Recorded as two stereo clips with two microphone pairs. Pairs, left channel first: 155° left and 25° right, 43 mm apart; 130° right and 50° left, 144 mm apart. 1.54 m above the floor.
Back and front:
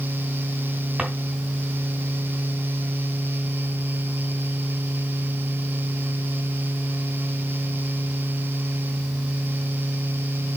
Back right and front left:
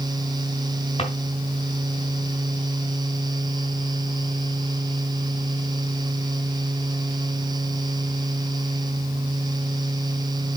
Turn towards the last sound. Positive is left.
turn(degrees=-90)